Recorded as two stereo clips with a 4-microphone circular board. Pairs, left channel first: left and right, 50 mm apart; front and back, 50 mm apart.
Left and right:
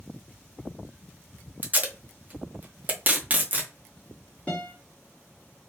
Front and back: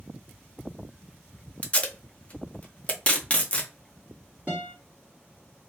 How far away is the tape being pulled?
About 0.6 m.